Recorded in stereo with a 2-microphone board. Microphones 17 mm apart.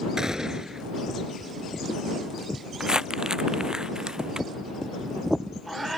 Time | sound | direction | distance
0.2 | a gunshot | 35° right (ahead or behind) | ?
2.8 | crumpling | 40° right (ahead or behind) | ?